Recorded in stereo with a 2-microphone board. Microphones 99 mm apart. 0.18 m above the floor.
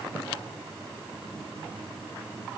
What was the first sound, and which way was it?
Only background noise.